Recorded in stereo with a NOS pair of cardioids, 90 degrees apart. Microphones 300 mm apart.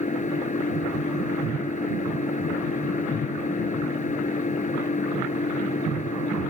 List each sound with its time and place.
0.0 s an engine running: 25° left